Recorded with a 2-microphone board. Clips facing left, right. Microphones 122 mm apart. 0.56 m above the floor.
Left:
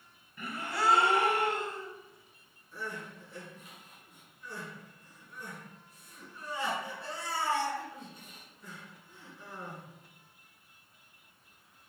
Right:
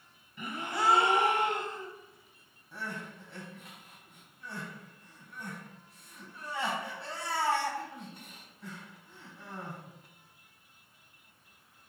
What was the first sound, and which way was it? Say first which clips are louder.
A gasp: right 1 dB; 20° right (ahead or behind).